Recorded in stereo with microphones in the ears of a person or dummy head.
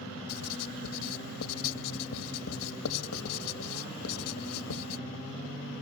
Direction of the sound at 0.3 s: 80° left.